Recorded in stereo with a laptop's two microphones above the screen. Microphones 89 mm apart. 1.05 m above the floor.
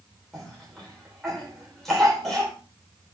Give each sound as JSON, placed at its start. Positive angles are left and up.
{"t": 0.3, "sound": "a cough", "side_deg": 5, "distance_m": 3.5}